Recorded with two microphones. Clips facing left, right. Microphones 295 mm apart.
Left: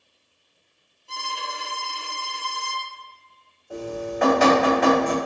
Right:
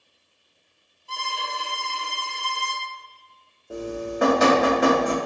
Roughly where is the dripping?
Right.